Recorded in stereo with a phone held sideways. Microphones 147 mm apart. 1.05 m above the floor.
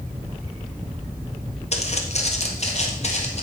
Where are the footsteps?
50° left (ahead or behind), 1.5 m.